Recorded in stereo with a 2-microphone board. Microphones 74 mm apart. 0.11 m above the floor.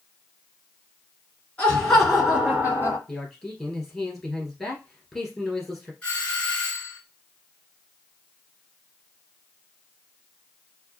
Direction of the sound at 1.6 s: 20° left (ahead or behind).